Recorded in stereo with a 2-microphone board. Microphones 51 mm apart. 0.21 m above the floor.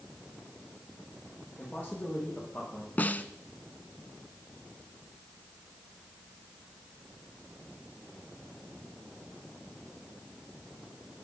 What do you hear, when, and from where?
1.6 s a man speaking: 40° left (ahead or behind), 10 m; by 2.9 s 45° left (ahead or behind), 9 m
3.0 s a snare drum: 30° left (ahead or behind), 1.0 m